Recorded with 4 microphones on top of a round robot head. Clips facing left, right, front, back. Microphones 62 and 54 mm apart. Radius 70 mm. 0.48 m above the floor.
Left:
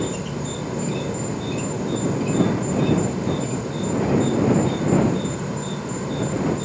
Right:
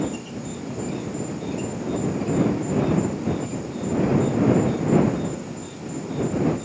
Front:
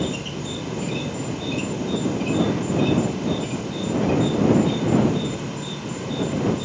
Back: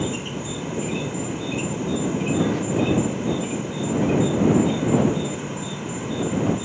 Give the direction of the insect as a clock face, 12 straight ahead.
8 o'clock.